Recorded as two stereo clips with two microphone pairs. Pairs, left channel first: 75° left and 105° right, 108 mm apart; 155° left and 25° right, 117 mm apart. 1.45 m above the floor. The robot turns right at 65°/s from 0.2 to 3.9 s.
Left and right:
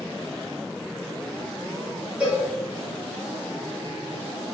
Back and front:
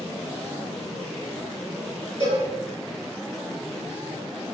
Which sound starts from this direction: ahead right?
A cowbell, at 2.2 s.